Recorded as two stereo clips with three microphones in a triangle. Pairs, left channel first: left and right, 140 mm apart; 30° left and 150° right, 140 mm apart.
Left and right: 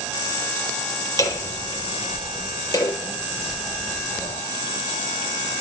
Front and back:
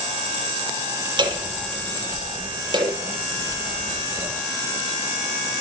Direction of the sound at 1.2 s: 155° left.